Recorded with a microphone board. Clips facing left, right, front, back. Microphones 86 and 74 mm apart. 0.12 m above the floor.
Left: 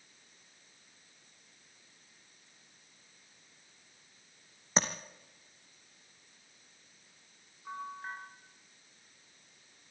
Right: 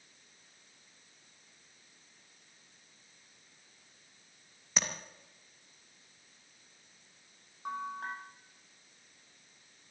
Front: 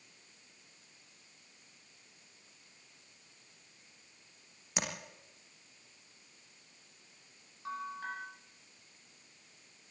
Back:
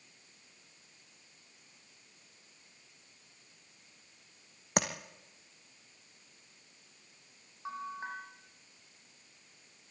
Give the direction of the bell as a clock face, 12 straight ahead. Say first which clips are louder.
Right 3 dB, even; 4 o'clock.